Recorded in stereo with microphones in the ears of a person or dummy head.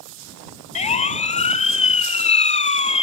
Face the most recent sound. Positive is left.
turn(degrees=30)  # may be behind; listen again after turning